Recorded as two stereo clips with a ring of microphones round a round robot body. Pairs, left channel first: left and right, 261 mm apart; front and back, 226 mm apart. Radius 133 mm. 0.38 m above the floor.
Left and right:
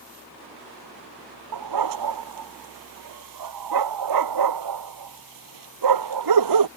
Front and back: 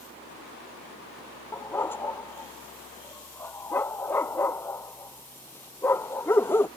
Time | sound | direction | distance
1.5 | a dog barking | 85° right | ?